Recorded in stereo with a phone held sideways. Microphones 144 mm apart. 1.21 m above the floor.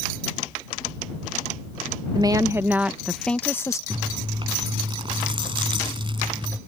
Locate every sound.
2.1 s a woman speaking: 30° right (ahead or behind); by 3.8 s 20° left (ahead or behind)
3.9 s chewing: 35° right (ahead or behind)